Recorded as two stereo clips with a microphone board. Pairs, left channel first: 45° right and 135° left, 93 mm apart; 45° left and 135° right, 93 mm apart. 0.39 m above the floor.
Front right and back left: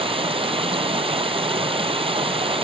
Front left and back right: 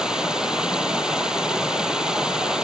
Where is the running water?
145° left.